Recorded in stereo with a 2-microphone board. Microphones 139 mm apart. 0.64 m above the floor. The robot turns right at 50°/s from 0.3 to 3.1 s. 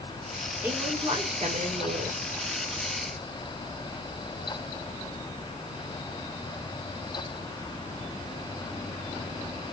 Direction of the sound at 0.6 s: 170° right.